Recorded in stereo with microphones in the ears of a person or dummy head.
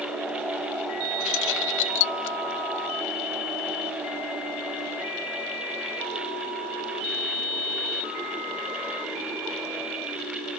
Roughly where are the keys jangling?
Left.